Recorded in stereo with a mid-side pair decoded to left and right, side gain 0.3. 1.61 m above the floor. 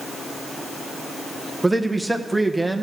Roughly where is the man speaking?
Ahead.